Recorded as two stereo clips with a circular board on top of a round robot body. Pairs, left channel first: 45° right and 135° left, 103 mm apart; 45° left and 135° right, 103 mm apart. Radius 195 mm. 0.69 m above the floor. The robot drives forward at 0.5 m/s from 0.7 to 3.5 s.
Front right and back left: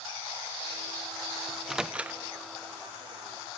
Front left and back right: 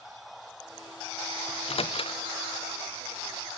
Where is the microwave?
45° left, 1.1 m; by 2.2 s 65° left, 1.0 m.